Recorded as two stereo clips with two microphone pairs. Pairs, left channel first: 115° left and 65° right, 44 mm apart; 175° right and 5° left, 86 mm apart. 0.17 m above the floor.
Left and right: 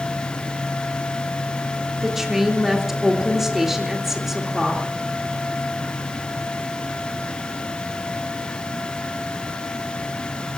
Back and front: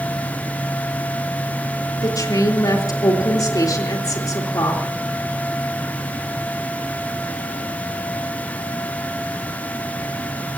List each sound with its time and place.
2.0 s a woman speaking: 145° right, 3.5 m